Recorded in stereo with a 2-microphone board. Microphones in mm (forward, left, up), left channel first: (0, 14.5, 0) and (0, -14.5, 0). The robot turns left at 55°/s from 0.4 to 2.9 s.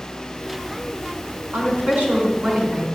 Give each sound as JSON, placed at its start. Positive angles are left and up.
{"t": 1.5, "sound": "a woman speaking", "azimuth_deg": -85, "distance_m": 5.5}